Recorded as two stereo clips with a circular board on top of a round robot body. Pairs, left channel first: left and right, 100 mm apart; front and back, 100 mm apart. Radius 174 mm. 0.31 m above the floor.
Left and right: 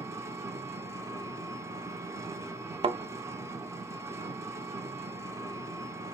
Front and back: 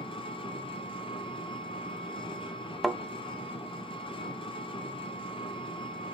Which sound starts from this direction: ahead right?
An engine running, at 0.0 s.